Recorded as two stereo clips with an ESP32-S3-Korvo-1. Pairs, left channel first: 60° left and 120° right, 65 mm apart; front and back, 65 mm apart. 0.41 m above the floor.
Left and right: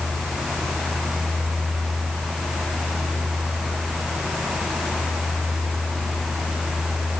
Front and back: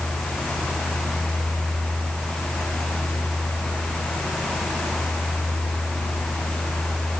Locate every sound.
Only background noise.